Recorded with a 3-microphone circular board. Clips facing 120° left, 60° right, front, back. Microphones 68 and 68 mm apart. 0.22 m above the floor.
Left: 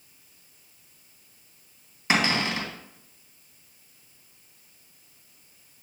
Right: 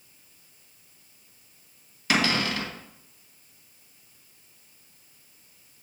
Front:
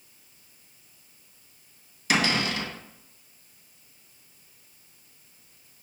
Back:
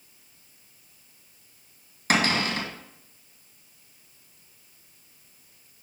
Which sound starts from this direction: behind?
A cupboard door, at 2.1 s.